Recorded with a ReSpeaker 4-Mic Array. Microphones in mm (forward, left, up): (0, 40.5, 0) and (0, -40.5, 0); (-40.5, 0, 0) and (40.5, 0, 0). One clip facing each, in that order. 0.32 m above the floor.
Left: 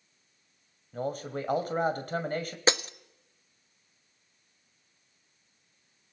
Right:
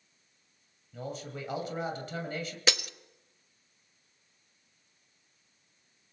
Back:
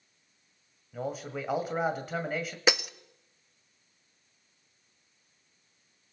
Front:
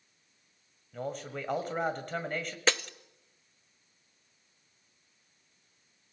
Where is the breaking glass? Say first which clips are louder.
Left 6 dB, back 2 dB; 115° left, 0.5 m.